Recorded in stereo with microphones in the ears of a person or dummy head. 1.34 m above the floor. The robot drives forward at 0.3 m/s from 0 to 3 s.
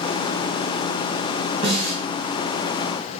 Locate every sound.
1.6 s a snare drum: 30° right (ahead or behind), 1.8 m